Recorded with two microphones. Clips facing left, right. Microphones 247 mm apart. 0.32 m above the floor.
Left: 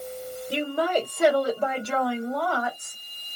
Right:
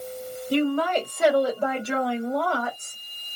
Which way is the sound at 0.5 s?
20° left (ahead or behind).